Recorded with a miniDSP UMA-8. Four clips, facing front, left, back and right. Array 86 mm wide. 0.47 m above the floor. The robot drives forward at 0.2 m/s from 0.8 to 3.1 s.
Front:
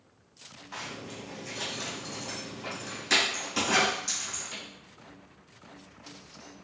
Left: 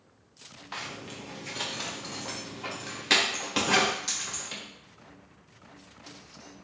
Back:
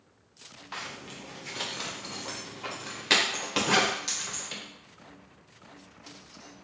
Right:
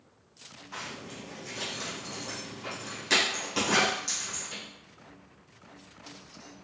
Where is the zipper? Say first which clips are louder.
Left 1 dB, front 1 dB; 125° left, 0.7 m; by 4.6 s 150° left, 1.0 m.